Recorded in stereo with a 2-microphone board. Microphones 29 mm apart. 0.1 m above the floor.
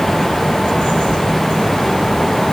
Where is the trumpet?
I don't hear a trumpet.